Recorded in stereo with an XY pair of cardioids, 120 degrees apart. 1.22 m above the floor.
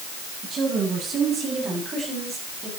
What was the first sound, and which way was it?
A woman speaking, 50° right.